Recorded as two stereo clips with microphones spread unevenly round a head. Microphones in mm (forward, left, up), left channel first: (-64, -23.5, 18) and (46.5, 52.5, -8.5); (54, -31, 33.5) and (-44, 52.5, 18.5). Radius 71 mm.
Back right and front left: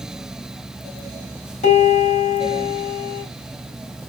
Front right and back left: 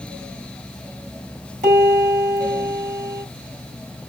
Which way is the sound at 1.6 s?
Straight behind.